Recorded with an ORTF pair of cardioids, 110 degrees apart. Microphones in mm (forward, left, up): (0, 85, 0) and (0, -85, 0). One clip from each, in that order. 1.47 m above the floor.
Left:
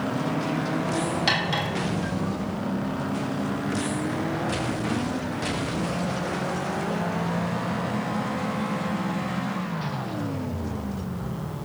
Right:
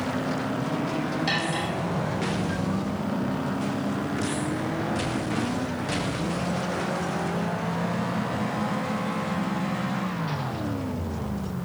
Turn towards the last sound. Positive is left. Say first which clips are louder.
# left 3 dB
turn(degrees=45)